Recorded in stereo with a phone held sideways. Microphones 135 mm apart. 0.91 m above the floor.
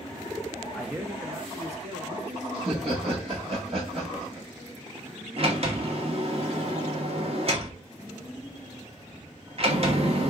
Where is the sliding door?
45° right (ahead or behind), 1.1 m.